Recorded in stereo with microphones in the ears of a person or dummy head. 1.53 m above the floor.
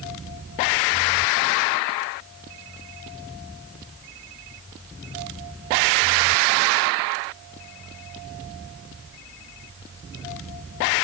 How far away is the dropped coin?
No dropped coin in this recording.